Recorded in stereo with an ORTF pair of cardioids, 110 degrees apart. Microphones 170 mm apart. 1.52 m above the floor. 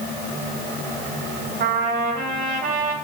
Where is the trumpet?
65° right, 2.5 m.